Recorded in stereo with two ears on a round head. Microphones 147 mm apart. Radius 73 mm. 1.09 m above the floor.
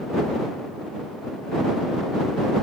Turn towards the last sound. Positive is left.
No sound to turn to.